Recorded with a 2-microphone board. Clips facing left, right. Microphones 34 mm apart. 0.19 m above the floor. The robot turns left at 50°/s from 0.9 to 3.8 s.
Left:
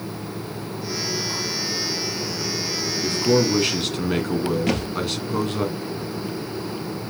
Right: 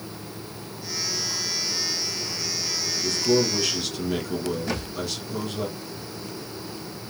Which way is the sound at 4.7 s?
75° left (ahead or behind).